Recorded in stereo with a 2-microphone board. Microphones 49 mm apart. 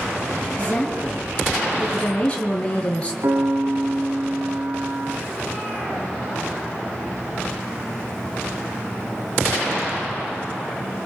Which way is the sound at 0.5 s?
25° left (ahead or behind).